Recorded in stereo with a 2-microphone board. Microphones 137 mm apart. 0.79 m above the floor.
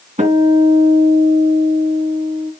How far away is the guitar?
About 2.5 m.